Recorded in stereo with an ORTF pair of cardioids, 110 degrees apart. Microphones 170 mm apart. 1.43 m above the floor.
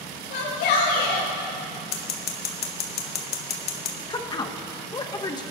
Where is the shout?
70° left, 3.5 m.